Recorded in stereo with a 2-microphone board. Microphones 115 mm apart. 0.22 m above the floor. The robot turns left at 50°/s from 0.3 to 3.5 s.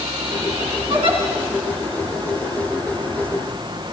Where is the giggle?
55° right (ahead or behind), 2.5 m.